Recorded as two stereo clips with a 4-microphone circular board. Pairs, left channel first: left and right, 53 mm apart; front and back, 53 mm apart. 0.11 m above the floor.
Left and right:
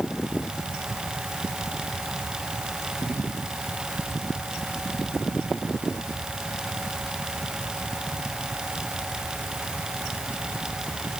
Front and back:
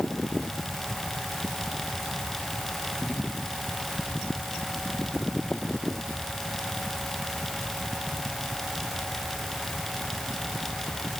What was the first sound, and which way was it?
Only background noise.